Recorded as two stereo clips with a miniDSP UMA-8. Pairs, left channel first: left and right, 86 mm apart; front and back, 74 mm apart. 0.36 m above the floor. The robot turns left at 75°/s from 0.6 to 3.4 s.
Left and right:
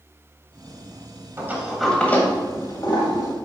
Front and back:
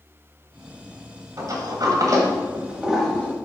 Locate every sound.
1.4 s a sliding door: 145° right, 1.6 m; by 3.4 s 65° left, 1.6 m